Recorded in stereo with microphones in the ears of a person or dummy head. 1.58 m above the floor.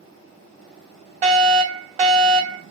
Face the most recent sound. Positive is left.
turn(degrees=-25)  # may be behind; listen again after turning